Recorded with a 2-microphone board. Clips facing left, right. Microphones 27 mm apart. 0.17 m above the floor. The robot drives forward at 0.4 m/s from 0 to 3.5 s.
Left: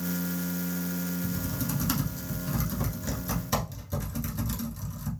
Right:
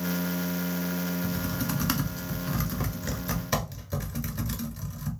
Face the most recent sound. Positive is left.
turn(degrees=-20)  # may be behind; listen again after turning